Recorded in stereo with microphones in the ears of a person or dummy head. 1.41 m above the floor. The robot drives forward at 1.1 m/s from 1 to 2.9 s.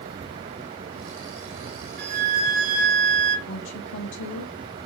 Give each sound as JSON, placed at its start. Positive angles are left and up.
{"t": 2.0, "sound": "a flute", "side_deg": -55, "distance_m": 1.9}
{"t": 3.5, "sound": "a woman speaking", "side_deg": 65, "distance_m": 0.8}